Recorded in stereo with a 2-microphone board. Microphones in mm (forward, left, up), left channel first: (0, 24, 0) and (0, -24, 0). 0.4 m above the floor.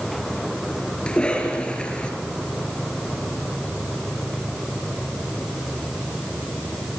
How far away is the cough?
About 6 m.